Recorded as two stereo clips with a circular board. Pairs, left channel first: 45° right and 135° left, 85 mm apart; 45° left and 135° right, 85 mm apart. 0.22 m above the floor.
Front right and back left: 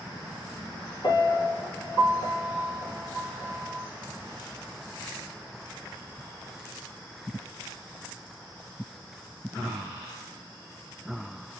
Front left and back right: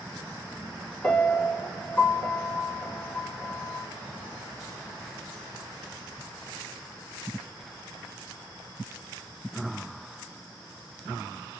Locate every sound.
1.0 s a piano: 25° right, 6 m